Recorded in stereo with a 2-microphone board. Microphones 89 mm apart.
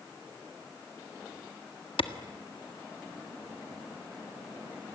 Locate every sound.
2.0 s a clap: 75° left (ahead or behind), 1.5 m